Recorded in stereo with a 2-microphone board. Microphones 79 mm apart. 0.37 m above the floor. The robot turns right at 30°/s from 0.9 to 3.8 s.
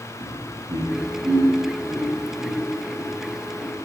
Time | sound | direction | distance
0.2 | laughter | 55° right (ahead or behind) | 3.5 m